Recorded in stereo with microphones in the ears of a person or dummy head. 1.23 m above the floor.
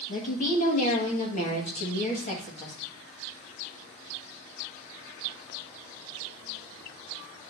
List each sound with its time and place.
0.1 s a woman speaking: 35° left (ahead or behind), 1.6 m